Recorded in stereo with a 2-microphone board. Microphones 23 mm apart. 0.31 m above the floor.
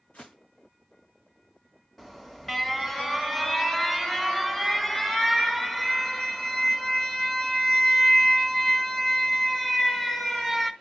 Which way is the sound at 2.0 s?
15° left (ahead or behind).